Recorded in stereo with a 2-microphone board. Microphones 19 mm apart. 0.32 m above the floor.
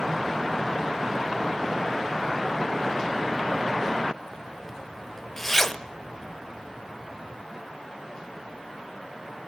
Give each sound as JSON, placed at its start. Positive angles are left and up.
{"t": 4.3, "sound": "a zipper", "side_deg": 20, "distance_m": 0.7}